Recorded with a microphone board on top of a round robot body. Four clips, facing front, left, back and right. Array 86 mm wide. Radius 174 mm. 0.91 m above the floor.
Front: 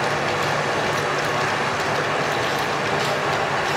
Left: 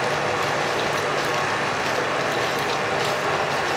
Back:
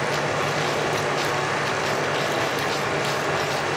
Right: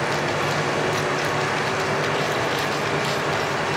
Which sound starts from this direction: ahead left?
Running water, at 0.0 s.